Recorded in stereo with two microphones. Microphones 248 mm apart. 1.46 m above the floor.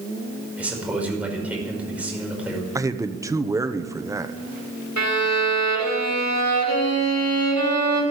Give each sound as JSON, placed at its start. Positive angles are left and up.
{"t": 0.6, "sound": "a man speaking", "side_deg": -5, "distance_m": 5.5}
{"t": 2.8, "sound": "a man speaking", "side_deg": -15, "distance_m": 1.0}
{"t": 5.0, "sound": "a violin", "side_deg": 85, "distance_m": 5.0}